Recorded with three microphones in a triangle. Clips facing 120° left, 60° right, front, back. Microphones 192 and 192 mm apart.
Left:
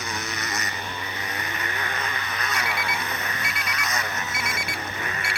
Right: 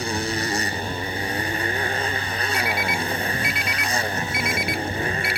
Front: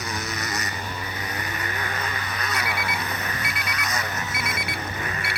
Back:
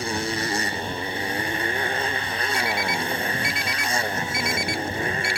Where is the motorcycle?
120° right.